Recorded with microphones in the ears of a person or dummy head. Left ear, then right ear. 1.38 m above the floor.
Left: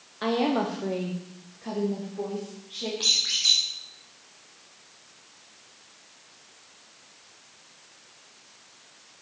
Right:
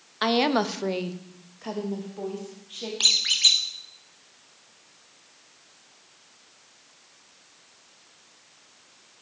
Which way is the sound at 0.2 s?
50° right (ahead or behind).